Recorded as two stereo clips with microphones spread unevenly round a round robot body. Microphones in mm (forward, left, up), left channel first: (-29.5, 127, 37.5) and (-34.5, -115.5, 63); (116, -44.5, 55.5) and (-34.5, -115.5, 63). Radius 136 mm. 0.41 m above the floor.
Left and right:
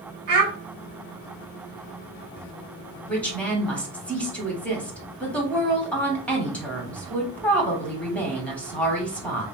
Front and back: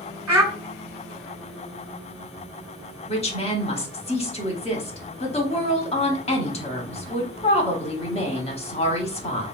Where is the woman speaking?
15° left, 1.0 m.